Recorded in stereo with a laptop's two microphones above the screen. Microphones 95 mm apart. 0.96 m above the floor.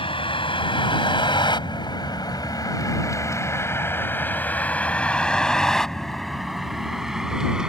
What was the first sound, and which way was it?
A vehicle, 75° left (ahead or behind).